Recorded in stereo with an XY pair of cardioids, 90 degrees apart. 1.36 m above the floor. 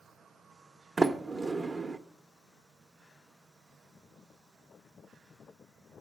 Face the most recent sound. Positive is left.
turn(degrees=-30)